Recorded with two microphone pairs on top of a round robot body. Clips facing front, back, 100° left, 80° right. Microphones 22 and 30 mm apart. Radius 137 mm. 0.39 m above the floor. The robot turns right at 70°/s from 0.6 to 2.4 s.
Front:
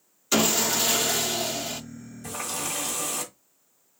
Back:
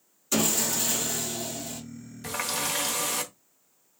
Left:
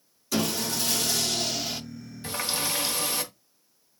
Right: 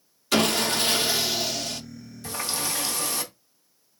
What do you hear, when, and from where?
0.3 s sawing: 45° right, 0.7 m; by 1.8 s 35° left, 0.7 m
2.2 s a running tap: 155° left, 1.3 m; by 3.3 s 165° left, 1.3 m